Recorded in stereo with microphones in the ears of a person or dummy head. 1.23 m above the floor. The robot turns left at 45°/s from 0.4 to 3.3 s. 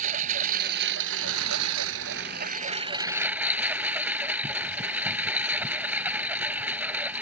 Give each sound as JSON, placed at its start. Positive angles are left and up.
{"t": 0.0, "sound": "a lawn mower", "azimuth_deg": -45}